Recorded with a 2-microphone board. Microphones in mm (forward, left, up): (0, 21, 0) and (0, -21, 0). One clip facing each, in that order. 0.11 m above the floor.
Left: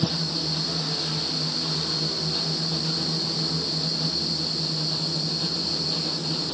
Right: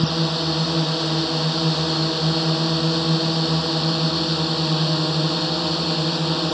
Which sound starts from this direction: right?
A drone, at 0.0 s.